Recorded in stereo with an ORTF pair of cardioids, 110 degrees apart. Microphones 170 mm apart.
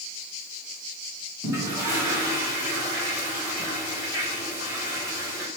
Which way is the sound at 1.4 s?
15° right.